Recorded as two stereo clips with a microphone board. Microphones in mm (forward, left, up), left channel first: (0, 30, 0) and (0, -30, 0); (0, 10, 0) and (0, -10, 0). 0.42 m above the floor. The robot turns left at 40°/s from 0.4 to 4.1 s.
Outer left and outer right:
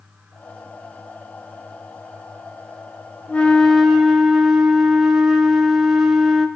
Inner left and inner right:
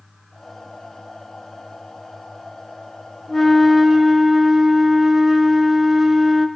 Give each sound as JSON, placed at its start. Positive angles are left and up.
{"t": 3.3, "sound": "a flute", "azimuth_deg": 25, "distance_m": 1.3}